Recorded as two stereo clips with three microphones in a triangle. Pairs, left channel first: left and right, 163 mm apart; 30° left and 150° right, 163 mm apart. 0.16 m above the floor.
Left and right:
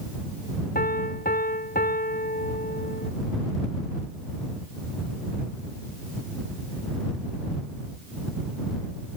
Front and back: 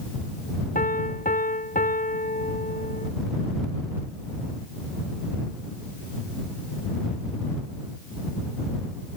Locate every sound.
0.8 s a piano: 65° left